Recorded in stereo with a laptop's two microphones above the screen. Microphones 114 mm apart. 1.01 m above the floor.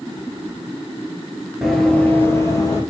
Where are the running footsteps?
Centre (ahead or behind), 1.1 m; by 2.8 s 35° left (ahead or behind), 1.8 m.